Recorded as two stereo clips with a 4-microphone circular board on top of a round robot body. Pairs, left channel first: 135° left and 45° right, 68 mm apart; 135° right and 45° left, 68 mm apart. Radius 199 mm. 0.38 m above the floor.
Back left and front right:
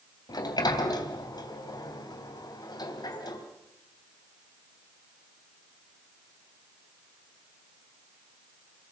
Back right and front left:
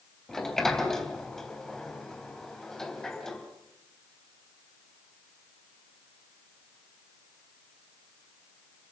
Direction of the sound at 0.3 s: 140° left.